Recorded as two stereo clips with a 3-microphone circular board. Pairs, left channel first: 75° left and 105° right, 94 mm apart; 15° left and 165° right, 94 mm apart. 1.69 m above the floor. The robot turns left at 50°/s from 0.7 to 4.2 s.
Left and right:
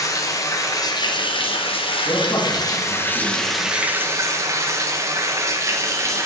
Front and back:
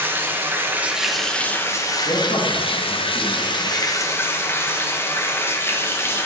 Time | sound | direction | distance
0.0 | running water | 125° left | 1.4 m
2.0 | a man speaking | 35° left | 2.5 m